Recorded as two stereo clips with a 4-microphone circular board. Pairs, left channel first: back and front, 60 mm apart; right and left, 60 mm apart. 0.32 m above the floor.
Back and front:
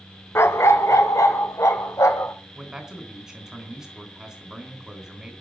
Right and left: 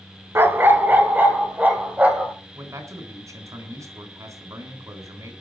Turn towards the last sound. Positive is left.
turn(degrees=80)